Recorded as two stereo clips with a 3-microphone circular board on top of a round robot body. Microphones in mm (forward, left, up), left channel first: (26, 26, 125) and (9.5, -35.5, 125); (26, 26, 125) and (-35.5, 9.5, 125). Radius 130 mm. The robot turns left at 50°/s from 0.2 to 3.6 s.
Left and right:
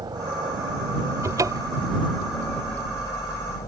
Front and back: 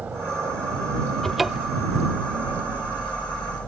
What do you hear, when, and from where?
0.0 s a helicopter: 100° right; by 3.7 s 90° left
1.2 s a cupboard door: 70° right; by 1.9 s 100° right